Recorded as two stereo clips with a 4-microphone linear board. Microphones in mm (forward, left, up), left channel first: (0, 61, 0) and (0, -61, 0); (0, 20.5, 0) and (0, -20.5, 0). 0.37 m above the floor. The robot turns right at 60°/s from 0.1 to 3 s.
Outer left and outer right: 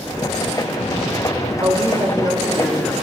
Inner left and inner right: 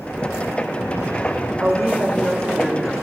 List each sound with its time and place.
1.6 s a woman speaking: 95° right, 1.2 m; by 2.9 s 15° right, 1.2 m